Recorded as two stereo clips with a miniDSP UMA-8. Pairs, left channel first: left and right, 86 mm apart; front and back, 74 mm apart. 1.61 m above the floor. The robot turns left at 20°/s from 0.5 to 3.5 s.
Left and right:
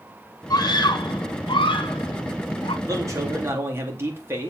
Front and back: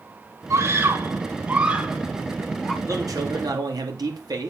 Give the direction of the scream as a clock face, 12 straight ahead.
7 o'clock.